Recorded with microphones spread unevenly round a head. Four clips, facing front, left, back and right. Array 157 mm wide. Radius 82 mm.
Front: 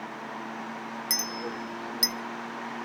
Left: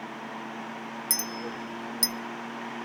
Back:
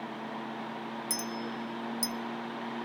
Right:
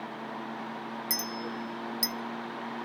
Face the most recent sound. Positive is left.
turn(degrees=15)